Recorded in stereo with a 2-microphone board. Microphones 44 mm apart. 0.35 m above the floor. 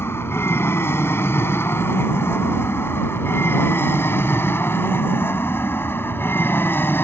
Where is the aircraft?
65° left (ahead or behind); by 7.0 s 55° left (ahead or behind).